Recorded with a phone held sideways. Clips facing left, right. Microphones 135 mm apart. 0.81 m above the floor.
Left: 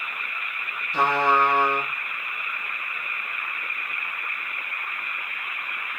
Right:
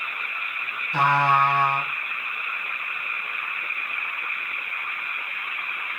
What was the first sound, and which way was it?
A trumpet, 80° right.